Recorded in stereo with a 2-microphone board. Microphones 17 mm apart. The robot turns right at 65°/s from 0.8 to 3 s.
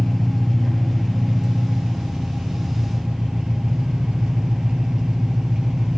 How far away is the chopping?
No chopping in this recording.